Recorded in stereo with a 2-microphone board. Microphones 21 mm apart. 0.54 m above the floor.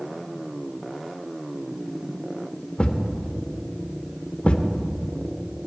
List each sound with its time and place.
2.8 s a thud: 60° left (ahead or behind), 0.6 m